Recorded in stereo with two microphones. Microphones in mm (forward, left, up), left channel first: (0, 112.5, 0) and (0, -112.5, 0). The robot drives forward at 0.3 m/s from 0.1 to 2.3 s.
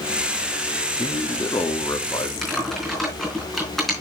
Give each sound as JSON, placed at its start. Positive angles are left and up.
{"t": 1.0, "sound": "a man speaking", "side_deg": 20, "distance_m": 1.0}
{"t": 2.4, "sound": "typing on a keyboard", "side_deg": 0, "distance_m": 3.5}